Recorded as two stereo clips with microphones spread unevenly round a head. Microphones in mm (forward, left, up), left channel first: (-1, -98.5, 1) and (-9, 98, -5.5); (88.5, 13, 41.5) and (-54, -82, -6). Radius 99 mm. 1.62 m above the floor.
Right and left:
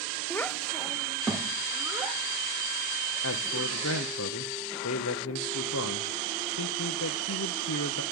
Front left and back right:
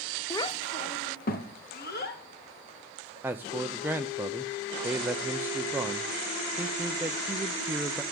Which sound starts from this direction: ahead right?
A man speaking, at 3.2 s.